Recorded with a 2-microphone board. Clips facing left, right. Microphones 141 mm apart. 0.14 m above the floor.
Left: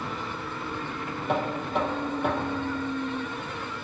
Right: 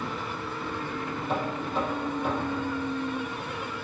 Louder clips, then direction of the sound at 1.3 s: Left 3 dB; 65° left (ahead or behind).